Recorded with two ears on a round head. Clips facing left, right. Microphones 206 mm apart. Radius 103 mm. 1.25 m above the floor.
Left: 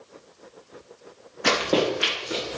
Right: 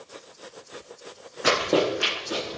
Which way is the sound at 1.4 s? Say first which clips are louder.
Even; 10° right (ahead or behind).